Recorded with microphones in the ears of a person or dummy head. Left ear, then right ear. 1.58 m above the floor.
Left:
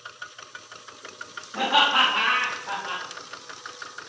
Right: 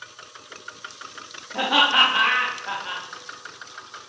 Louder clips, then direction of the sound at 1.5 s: Right 2 dB; 45° right (ahead or behind).